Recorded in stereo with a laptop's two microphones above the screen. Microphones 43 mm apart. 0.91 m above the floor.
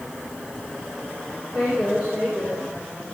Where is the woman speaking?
25° right (ahead or behind), 3.5 m.